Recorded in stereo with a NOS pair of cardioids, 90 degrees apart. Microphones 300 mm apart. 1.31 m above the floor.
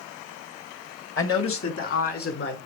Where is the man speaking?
45° left, 1.4 m.